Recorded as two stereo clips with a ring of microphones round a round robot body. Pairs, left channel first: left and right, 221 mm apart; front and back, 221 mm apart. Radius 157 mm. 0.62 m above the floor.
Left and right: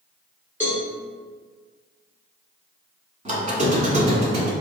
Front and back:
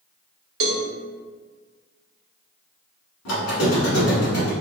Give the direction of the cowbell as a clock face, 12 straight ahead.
6 o'clock.